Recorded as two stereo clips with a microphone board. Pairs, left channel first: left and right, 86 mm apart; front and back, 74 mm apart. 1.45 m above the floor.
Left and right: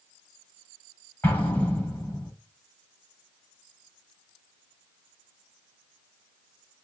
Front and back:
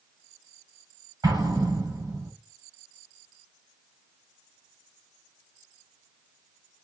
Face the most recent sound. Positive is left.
turn(degrees=155)